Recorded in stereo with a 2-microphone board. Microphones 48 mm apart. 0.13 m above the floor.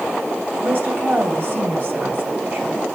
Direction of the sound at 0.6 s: 50° right (ahead or behind).